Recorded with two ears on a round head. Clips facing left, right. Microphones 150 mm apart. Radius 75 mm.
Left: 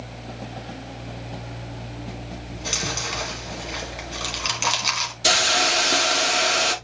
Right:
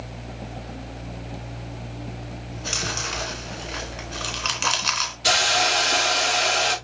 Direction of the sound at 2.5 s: 10° left (ahead or behind).